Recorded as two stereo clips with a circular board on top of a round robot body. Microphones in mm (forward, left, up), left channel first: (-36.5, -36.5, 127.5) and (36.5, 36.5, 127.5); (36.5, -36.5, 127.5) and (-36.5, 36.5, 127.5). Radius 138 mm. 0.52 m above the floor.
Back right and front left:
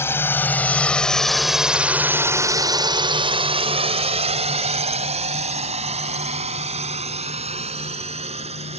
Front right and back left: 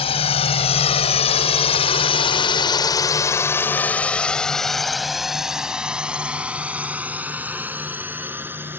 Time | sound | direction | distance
0.0 | a drone | 70° right | ?